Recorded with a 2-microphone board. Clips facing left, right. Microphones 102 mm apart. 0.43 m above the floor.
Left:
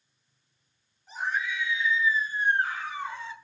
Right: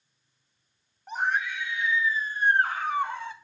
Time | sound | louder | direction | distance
1.1 | a scream | right 3 dB | 60° right (ahead or behind) | 4.5 m